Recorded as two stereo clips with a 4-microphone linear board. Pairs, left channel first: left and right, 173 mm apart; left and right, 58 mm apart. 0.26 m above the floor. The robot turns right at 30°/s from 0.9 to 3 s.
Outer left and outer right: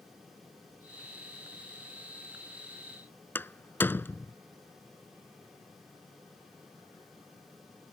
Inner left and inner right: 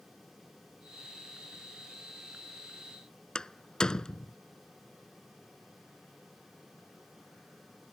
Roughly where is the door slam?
Centre.